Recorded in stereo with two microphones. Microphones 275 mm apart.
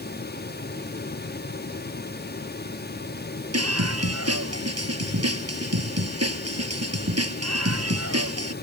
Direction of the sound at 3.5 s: 60° right (ahead or behind).